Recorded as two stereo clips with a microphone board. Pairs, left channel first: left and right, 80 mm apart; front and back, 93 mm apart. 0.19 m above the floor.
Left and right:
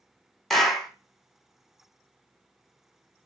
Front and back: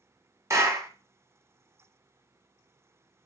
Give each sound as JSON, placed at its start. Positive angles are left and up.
{"t": 0.5, "sound": "a clap", "azimuth_deg": 175, "distance_m": 1.1}